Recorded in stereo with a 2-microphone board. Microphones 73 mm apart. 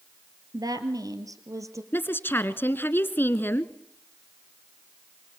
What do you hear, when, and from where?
0.5 s a woman speaking: 60° right (ahead or behind), 2.5 m; by 1.8 s 45° right (ahead or behind), 3 m
1.9 s a woman speaking: 30° left (ahead or behind), 1.3 m